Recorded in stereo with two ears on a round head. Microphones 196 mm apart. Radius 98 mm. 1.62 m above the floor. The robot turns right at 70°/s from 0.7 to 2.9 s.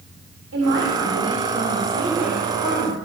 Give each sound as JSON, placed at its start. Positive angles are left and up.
{"t": 0.5, "sound": "a man speaking", "azimuth_deg": -115, "distance_m": 7.0}